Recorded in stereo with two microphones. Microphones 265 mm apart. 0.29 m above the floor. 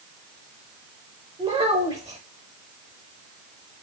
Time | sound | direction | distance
1.4 | a child speaking | 25° right (ahead or behind) | 0.7 m